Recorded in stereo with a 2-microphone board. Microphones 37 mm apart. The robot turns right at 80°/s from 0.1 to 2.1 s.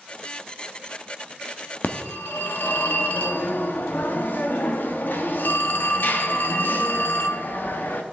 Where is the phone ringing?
60° left (ahead or behind), 0.8 m.